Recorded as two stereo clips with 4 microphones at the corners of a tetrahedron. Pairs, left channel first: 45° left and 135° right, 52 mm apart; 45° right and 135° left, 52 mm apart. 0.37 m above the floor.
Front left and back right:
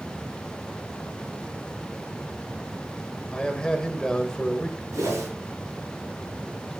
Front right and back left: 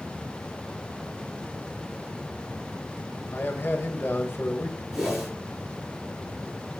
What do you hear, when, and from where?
3.3 s a man speaking: 25° right, 1.7 m
4.9 s a whoosh: 140° right, 6.5 m